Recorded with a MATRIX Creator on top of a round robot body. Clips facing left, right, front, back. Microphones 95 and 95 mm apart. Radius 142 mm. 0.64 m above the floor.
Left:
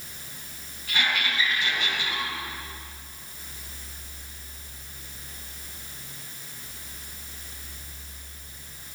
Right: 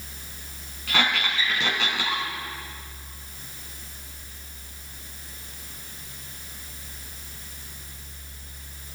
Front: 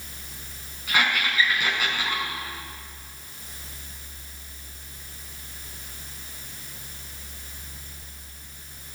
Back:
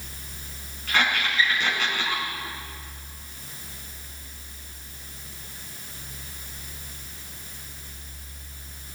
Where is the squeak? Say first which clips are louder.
Right 2 dB, even; 85° right, 6.5 m.